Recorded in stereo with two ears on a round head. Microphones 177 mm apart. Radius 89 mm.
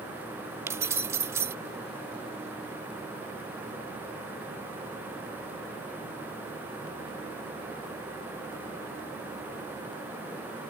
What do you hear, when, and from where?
0.7 s keys jangling: 15° right (ahead or behind)